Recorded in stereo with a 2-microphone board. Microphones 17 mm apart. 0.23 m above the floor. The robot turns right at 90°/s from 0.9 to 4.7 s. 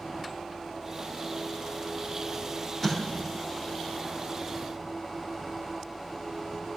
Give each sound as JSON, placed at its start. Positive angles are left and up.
{"t": 2.8, "sound": "an explosion", "azimuth_deg": 10, "distance_m": 3.5}